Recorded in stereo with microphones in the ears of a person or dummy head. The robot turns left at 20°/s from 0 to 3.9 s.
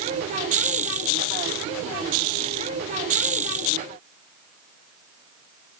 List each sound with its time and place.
Only background noise.